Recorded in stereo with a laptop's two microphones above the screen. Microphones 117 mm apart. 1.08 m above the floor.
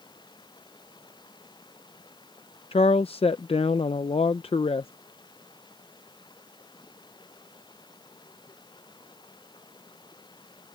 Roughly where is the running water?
Left.